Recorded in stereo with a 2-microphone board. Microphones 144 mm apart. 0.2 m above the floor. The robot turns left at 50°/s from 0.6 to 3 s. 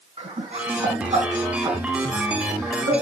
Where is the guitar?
I don't hear a guitar.